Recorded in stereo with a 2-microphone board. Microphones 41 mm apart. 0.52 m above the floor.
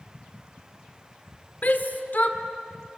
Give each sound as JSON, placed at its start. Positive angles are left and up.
{"t": 1.6, "sound": "a shout", "side_deg": 50, "distance_m": 1.7}